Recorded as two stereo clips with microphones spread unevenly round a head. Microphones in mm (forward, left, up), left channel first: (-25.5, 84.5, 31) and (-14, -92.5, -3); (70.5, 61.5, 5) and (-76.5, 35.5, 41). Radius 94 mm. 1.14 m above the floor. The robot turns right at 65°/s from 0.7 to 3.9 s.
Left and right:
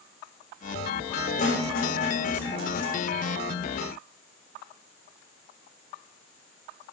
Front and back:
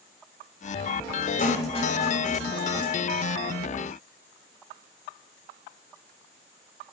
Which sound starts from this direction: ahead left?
A snare drum, at 1.4 s.